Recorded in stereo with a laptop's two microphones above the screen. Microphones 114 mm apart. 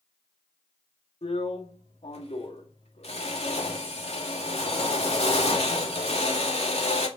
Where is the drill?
70° left (ahead or behind), 2 m.